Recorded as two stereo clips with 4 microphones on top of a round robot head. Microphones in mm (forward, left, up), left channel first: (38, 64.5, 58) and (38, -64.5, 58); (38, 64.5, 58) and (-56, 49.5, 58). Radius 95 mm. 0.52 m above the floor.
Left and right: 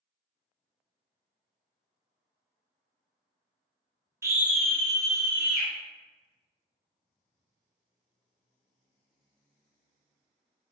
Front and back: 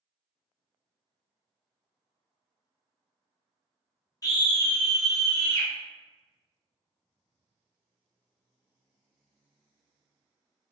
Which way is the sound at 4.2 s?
30° right.